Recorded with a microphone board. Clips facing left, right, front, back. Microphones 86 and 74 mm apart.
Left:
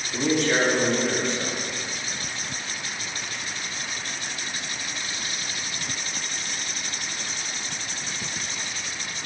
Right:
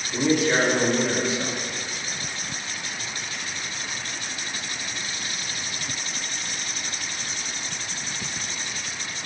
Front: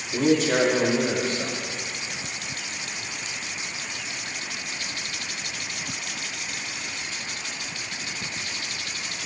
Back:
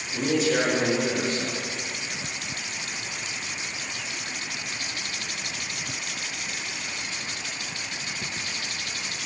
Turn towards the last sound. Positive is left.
turn(degrees=-10)